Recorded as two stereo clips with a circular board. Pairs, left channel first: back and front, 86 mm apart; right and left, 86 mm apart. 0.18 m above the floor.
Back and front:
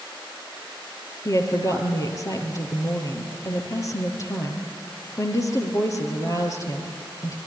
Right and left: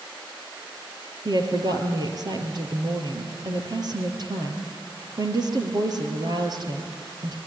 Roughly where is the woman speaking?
Behind left.